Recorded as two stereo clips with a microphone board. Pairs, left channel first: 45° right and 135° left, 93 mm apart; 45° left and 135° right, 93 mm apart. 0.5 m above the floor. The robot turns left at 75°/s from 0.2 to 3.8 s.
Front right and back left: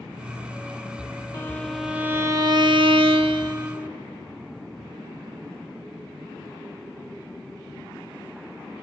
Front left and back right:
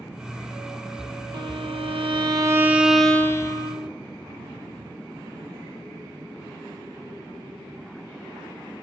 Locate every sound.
1.3 s a violin: 105° right, 0.6 m; by 3.9 s 70° left, 0.6 m